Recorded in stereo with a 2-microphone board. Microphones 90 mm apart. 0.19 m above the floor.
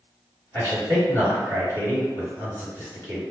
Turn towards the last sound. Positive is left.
turn(degrees=30)  # may be behind; listen again after turning